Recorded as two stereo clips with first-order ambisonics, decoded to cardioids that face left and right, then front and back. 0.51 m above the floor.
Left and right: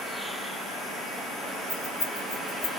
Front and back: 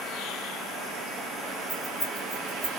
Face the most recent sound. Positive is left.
turn(degrees=75)